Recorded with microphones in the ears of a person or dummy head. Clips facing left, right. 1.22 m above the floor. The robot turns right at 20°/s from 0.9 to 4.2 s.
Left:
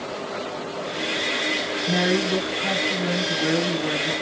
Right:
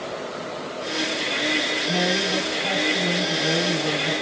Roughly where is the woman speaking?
Behind left.